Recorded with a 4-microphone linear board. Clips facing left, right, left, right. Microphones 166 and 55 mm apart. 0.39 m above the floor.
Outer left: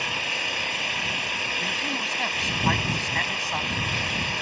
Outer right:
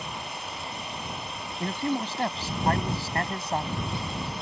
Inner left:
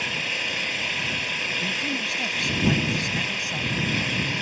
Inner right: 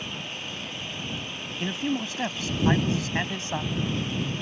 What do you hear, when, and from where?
0.0 s an engine running: 80° left
1.6 s a man speaking: 30° right (ahead or behind)